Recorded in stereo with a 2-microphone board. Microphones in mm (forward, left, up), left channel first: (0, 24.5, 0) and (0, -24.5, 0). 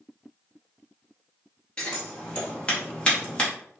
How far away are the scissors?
About 0.9 m.